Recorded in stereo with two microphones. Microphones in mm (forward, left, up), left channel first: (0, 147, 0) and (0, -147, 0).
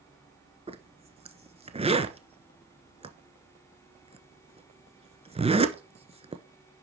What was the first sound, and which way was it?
A zipper, 20° right (ahead or behind).